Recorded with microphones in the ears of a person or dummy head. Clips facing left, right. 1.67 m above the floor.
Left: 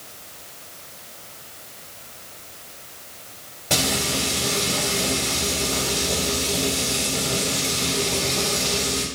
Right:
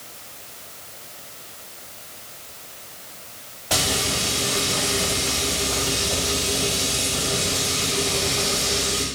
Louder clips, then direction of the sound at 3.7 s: Left 1 dB; 25° left (ahead or behind).